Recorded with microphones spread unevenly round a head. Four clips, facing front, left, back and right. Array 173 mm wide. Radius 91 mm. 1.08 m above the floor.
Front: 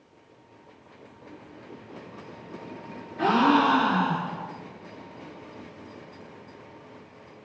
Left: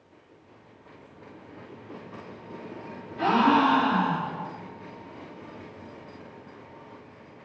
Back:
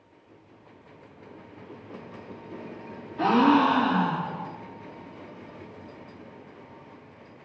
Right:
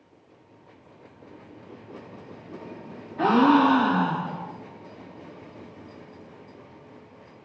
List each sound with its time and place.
3.2 s a gasp: 120° right, 1.7 m